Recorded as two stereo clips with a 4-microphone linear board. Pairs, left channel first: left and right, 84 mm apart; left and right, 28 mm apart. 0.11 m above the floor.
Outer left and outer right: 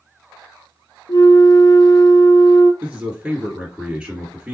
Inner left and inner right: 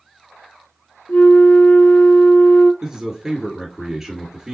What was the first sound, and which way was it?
A flute, 60° left (ahead or behind).